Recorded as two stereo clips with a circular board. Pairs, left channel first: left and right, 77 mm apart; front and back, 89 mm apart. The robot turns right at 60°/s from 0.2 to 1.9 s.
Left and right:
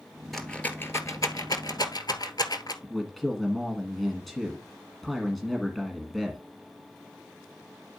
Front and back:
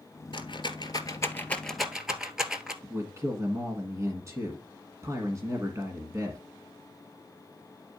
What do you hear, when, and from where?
0.3 s a rattle: straight ahead, 1.3 m; by 2.7 s 95° left, 1.3 m
2.8 s a man speaking: 175° left, 1.3 m